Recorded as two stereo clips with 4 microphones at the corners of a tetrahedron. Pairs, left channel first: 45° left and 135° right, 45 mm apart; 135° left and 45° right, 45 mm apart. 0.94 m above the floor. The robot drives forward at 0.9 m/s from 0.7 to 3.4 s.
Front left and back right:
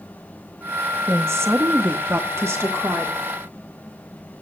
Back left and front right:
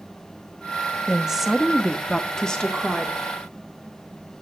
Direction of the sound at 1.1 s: 115° right.